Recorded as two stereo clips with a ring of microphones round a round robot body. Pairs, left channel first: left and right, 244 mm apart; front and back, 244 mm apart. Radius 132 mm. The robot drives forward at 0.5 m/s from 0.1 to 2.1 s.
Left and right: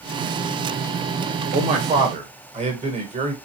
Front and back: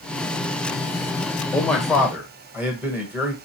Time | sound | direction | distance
1.5 | a man speaking | 75° right | 1.3 m